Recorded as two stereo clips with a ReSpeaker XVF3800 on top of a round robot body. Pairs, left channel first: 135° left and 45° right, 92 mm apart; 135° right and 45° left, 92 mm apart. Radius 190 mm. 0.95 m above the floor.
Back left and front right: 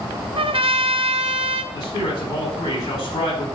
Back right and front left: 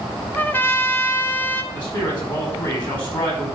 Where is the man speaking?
Straight behind, 4 m.